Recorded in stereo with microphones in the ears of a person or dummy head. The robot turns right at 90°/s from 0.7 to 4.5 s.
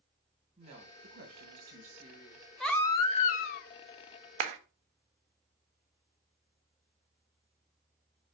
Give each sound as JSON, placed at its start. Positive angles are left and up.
{"t": 0.6, "sound": "a woman speaking", "azimuth_deg": -150, "distance_m": 1.7}
{"t": 2.6, "sound": "a baby crying", "azimuth_deg": 0, "distance_m": 0.7}
{"t": 4.4, "sound": "a clap", "side_deg": -45, "distance_m": 0.7}